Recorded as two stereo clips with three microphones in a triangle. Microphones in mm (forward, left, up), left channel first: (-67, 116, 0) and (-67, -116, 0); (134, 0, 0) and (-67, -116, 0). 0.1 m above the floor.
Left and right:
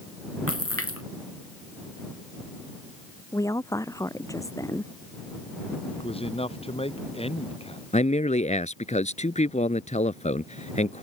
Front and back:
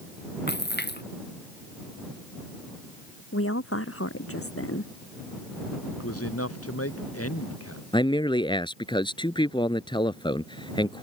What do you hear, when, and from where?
0.5 s a splash: 75° left
3.3 s a woman speaking: 15° left
5.9 s a man speaking: 25° left
7.9 s a man speaking: 75° left